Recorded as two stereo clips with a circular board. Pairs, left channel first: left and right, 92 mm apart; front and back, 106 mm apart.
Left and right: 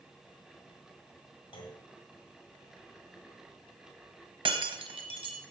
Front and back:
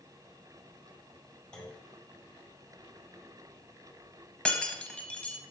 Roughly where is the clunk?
Left.